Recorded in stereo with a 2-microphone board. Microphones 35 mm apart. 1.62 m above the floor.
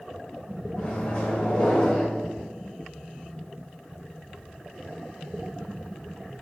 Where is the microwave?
40° left (ahead or behind), 1.3 m.